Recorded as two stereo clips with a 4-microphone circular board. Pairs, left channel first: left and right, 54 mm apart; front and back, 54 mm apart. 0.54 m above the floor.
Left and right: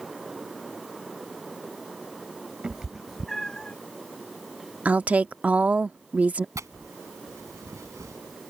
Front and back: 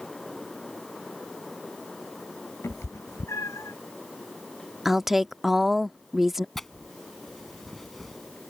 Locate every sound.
2.6 s a cat meowing: 20° right; by 3.8 s 15° left
4.8 s a woman speaking: 100° right
6.5 s tearing paper: 85° right